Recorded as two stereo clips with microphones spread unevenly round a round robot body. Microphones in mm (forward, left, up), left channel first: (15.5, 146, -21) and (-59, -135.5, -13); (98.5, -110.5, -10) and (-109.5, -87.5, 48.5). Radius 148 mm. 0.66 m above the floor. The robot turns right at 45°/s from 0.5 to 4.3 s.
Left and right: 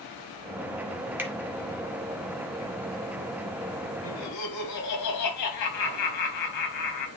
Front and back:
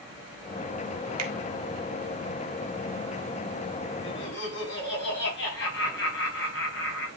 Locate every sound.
1.2 s a finger snap: 170° left, 1.8 m; by 1.3 s 175° left, 1.8 m
4.0 s laughter: 25° left, 4.5 m; by 7.1 s 40° left, 4.5 m